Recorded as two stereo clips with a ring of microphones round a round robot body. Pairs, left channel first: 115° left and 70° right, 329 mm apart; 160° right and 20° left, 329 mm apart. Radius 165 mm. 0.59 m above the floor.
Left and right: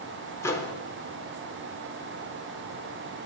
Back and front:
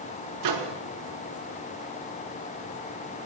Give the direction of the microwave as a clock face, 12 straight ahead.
11 o'clock.